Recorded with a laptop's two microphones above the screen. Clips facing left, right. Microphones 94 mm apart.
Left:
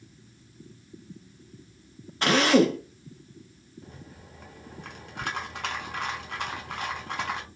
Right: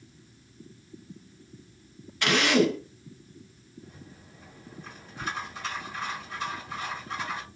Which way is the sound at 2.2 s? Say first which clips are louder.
Left 3 dB; 35° left (ahead or behind).